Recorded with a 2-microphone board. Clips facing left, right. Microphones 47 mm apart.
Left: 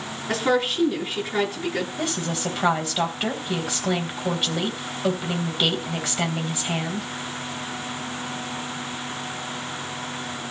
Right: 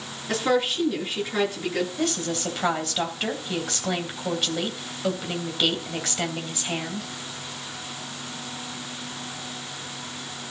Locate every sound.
0.3 s a woman speaking: 5° left (ahead or behind), 8 m
2.0 s a woman speaking: 5° left (ahead or behind), 3 m